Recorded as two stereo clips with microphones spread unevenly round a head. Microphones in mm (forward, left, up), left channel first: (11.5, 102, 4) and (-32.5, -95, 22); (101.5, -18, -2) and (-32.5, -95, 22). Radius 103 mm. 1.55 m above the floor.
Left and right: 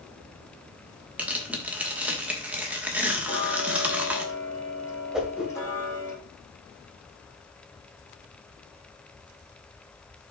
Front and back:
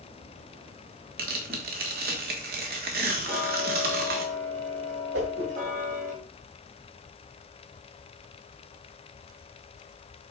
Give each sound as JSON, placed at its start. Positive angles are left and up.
{"t": 1.2, "sound": "tearing paper", "azimuth_deg": 175, "distance_m": 1.4}
{"t": 3.2, "sound": "ticking", "azimuth_deg": 150, "distance_m": 3.5}
{"t": 5.1, "sound": "a whoosh", "azimuth_deg": 170, "distance_m": 1.8}